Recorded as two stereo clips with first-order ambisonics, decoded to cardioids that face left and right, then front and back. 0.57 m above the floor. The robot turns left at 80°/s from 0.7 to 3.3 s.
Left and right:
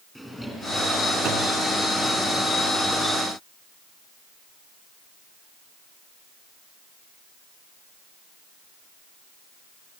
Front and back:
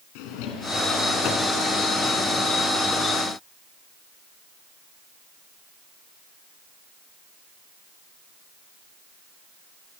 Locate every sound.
0.1 s a drawer: straight ahead, 3 m; by 1.6 s 70° right, 3 m